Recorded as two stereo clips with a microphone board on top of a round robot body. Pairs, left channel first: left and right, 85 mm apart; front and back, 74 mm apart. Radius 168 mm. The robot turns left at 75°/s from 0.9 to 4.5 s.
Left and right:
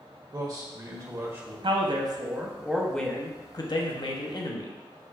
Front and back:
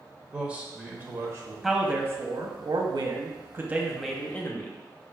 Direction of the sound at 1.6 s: 90° right.